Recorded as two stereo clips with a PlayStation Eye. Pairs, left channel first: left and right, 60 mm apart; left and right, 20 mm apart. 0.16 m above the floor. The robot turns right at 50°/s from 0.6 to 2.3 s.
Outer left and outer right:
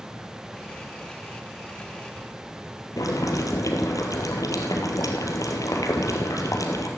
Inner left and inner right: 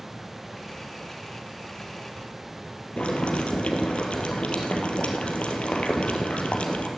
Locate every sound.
3.0 s boiling: 75° left (ahead or behind), 2 m